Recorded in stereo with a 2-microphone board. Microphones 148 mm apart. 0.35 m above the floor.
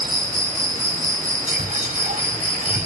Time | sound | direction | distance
0.0 | an insect | 80° right | 3 m
1.5 | whispering | 65° right (ahead or behind) | 2.5 m